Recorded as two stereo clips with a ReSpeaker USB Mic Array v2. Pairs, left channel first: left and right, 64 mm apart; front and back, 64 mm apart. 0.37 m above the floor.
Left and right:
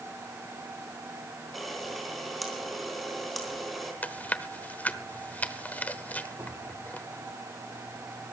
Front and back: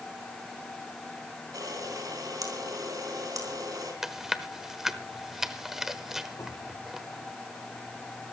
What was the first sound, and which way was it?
A camera shutter, 175° left.